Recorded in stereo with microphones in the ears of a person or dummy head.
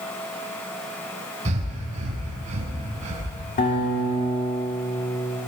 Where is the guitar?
40° left (ahead or behind), 2.5 m.